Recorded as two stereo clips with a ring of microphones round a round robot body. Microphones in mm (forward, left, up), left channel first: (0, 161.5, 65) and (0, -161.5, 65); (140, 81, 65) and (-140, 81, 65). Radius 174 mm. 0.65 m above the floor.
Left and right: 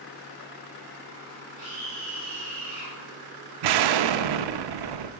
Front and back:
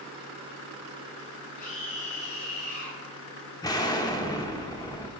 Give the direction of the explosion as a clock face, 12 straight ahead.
3 o'clock.